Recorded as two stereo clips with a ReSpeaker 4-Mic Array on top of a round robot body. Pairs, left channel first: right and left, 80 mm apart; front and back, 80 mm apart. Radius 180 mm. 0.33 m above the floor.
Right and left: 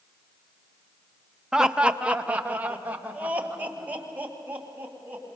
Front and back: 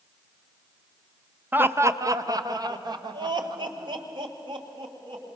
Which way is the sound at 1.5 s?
160° left.